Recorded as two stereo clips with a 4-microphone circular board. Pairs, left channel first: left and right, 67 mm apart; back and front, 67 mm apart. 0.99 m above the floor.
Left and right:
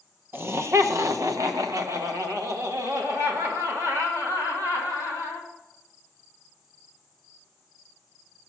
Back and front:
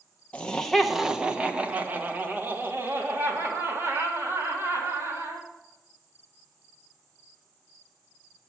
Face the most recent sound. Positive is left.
turn(degrees=-45)